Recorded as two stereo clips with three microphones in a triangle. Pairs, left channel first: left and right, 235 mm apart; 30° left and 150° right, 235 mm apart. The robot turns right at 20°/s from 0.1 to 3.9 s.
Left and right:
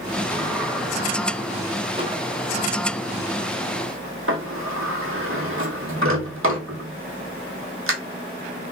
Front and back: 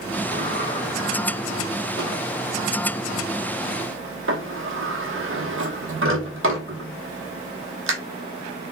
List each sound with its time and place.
0.3 s a sliding door: 170° left, 1.0 m; by 7.9 s 120° right, 1.0 m